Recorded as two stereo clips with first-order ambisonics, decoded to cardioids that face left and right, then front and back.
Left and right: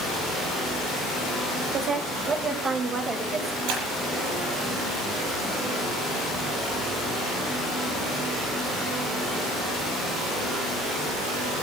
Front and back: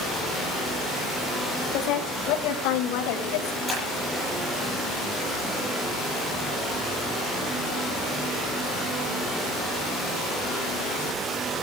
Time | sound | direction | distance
1.7 | a woman speaking | 35° right | 7 m
3.7 | breaking glass | 95° right | 8.5 m